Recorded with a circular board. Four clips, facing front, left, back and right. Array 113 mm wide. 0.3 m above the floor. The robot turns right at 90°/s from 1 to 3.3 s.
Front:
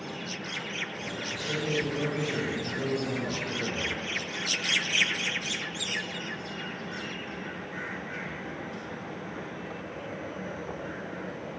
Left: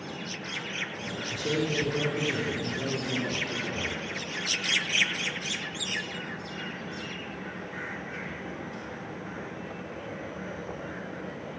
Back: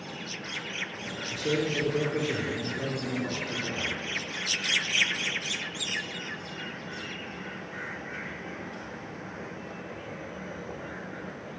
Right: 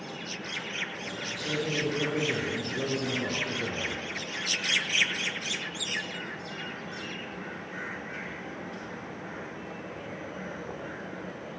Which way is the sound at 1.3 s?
130° left.